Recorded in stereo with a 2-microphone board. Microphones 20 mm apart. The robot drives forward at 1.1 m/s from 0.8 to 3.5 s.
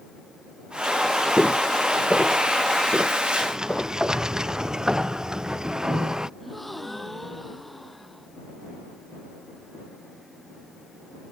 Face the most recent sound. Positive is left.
turn(degrees=5)  # may be behind; listen again after turning